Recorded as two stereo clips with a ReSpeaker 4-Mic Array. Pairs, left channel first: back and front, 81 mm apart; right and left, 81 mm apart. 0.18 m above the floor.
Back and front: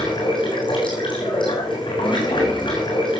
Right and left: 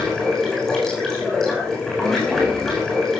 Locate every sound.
0.0 s running water: 170° right, 7.5 m